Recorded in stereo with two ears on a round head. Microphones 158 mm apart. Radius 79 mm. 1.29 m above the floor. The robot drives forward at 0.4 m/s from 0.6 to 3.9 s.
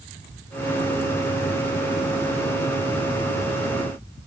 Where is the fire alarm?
No fire alarm in this recording.